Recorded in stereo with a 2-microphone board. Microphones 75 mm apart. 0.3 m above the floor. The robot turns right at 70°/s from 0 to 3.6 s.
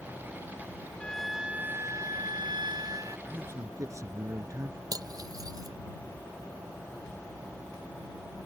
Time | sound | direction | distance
1.0 | a flute | 165° left | ?
3.3 | a man speaking | 25° right (ahead or behind) | ?
4.9 | cutlery clinking | 55° right (ahead or behind) | ?